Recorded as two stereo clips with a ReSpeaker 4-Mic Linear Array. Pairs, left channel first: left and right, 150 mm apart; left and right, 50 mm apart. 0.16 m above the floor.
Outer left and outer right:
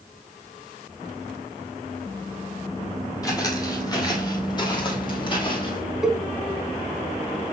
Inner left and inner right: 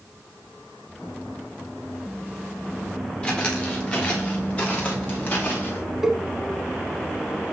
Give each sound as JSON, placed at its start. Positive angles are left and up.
{"t": 3.2, "sound": "footsteps", "side_deg": 20, "distance_m": 4.0}
{"t": 6.0, "sound": "a cowbell", "side_deg": -5, "distance_m": 1.1}